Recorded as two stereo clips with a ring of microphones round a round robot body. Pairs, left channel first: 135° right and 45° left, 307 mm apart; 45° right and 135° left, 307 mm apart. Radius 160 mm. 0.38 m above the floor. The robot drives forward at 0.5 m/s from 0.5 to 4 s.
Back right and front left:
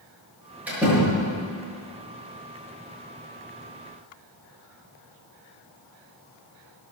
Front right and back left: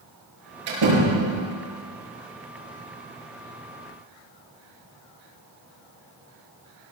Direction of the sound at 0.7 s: 130° left.